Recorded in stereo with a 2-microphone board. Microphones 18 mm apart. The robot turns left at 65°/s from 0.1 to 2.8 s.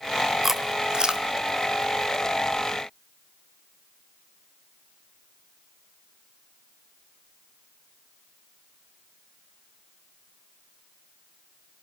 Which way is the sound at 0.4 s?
20° right (ahead or behind).